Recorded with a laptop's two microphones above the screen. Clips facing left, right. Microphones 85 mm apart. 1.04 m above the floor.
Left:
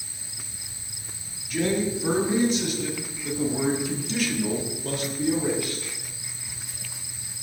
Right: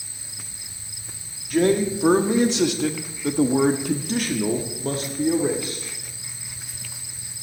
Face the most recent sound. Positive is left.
turn(degrees=-20)  # may be behind; listen again after turning